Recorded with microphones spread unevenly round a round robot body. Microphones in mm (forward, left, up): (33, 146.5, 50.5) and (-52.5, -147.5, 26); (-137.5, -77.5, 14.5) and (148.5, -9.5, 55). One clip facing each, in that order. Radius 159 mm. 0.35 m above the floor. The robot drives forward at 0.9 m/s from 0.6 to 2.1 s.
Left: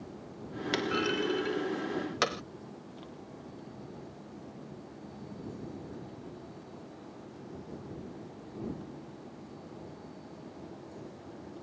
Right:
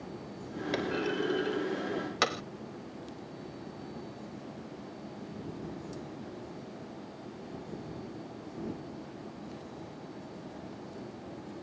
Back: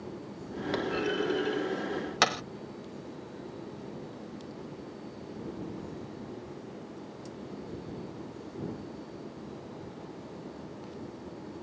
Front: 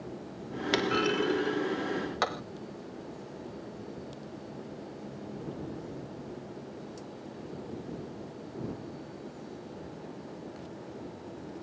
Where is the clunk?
25° left; by 2.4 s 170° left.